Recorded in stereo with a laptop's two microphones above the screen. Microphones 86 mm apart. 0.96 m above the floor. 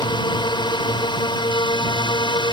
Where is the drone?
60° left (ahead or behind).